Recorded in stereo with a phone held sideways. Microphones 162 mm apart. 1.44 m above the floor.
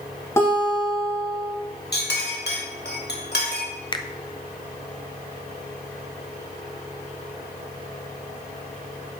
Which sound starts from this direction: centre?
A guitar, at 0.4 s.